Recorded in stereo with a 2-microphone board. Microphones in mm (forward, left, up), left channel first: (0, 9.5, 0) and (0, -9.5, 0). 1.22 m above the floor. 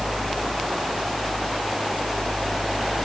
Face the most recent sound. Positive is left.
No sound to turn to.